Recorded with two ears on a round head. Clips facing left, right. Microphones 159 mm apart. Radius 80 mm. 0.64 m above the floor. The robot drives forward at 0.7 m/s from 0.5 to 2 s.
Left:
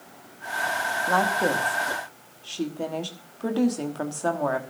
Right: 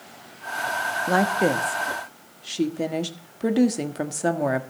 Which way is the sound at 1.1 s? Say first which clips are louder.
Right 3 dB; 25° right (ahead or behind).